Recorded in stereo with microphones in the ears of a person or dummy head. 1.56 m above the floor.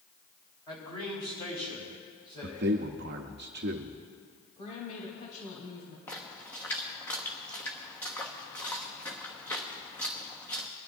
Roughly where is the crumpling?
No crumpling in this recording.